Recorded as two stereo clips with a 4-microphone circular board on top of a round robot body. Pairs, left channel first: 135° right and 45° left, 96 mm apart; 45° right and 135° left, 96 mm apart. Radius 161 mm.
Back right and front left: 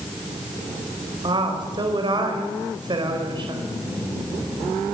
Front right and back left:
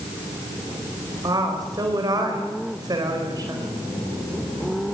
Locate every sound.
1.2 s a woman speaking: 85° left, 4.5 m